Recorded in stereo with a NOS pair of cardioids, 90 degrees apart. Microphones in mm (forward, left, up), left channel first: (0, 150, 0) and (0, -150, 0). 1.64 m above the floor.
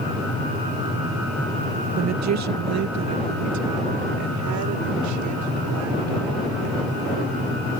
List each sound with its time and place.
2.0 s a woman speaking: 55° right; by 7.5 s 75° right